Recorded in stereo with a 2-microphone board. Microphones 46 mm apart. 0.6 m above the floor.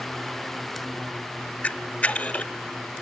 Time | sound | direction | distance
1.6 | a camera shutter | 30° left (ahead or behind) | 0.6 m